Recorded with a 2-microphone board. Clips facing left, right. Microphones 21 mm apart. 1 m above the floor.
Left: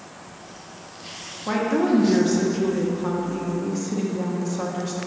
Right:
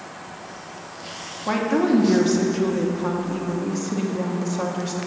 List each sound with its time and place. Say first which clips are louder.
1.5 s a woman speaking: right 1 dB; 15° right (ahead or behind), 0.9 m